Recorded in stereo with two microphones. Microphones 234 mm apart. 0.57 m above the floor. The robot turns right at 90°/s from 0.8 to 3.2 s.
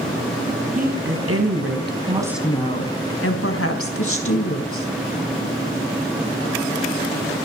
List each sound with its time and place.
0.8 s a woman speaking: 145° right, 4.5 m; by 4.9 s 70° left, 4.5 m